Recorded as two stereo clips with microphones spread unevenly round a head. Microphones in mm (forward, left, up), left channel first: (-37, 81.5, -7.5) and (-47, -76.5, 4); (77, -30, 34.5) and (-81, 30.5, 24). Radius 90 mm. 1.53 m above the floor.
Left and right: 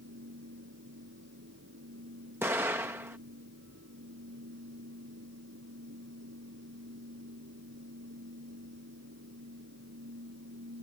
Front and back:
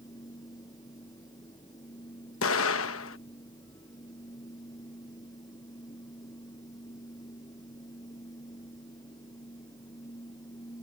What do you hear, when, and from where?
0.0 s a fan: 90° right
2.4 s an explosion: 15° right